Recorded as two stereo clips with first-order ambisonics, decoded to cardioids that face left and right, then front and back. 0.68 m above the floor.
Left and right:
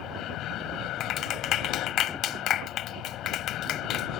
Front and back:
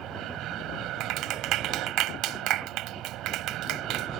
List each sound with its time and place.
0.0 s an aircraft: 140° left
1.0 s a clap: 140° left